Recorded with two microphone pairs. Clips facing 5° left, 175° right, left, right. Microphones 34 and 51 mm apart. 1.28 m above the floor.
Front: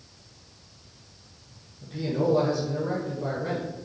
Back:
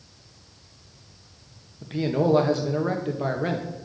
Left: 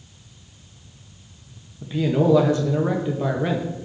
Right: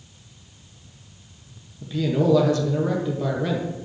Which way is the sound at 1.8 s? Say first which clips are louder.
Back 3 dB, left 2 dB; 155° left.